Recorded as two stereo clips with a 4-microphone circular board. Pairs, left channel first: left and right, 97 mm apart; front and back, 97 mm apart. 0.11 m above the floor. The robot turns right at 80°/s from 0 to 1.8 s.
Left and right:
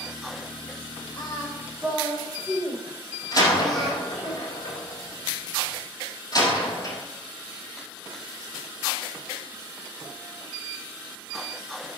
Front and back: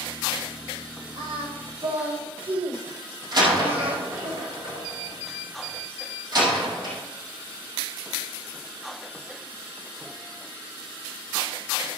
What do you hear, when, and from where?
1.2 s singing: 125° left, 4 m; by 4.3 s straight behind, 4 m
3.3 s a door slam: 140° left, 3 m